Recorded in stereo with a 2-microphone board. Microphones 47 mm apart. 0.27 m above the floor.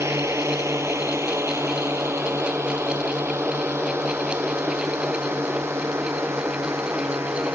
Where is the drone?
75° right (ahead or behind); by 7.6 s 65° right (ahead or behind).